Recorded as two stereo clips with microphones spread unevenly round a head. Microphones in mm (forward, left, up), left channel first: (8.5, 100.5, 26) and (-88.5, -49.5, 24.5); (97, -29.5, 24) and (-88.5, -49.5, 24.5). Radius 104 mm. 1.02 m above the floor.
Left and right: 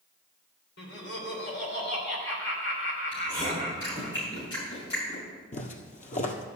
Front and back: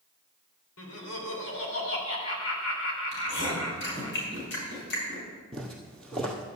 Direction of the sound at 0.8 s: 20° left.